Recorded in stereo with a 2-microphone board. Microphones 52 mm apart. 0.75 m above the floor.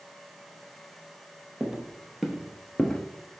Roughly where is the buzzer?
No buzzer in this recording.